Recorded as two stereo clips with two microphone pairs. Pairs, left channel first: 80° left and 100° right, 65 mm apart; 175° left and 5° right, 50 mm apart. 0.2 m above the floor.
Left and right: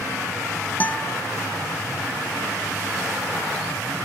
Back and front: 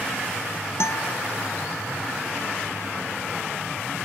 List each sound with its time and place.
0.8 s a guitar: 145° left